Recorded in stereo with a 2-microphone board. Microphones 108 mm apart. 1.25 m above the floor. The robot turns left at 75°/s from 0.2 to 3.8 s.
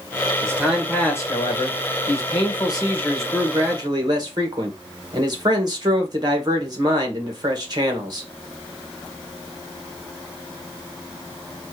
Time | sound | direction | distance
0.4 | a man speaking | 150° right | 1.6 m